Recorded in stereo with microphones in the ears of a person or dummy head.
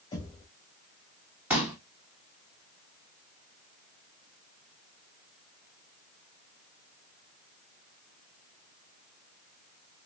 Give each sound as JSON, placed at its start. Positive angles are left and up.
{"t": 0.1, "sound": "knocking", "side_deg": 25, "distance_m": 2.0}
{"t": 1.5, "sound": "a pop", "side_deg": -10, "distance_m": 1.0}